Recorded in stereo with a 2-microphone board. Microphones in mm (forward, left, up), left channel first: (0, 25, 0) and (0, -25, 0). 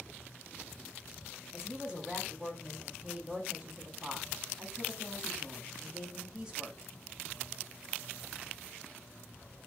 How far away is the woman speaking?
About 1.3 m.